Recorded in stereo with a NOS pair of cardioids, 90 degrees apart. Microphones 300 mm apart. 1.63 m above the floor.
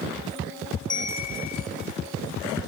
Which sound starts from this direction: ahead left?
A bell, at 0.9 s.